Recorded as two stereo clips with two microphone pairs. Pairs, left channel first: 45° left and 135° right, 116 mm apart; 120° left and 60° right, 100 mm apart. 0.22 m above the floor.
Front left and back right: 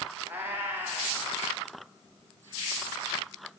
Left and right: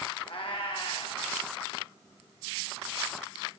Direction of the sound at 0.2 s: 150° left.